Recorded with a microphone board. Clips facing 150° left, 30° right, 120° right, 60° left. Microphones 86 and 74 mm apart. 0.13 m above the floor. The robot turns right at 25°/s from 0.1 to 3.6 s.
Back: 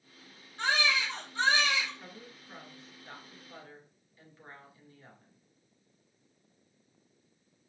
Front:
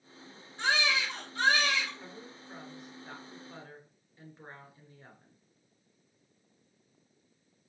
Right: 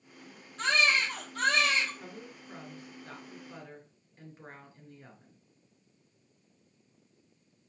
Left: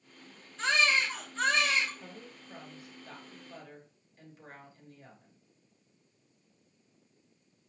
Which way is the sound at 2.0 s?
120° right.